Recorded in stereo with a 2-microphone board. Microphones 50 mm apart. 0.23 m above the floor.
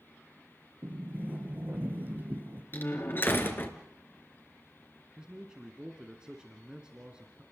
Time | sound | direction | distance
0.8 | a sliding door | 40° right (ahead or behind) | 5 m
2.7 | a door slam | 45° left (ahead or behind) | 3 m
5.2 | a man speaking | 15° right (ahead or behind) | 2 m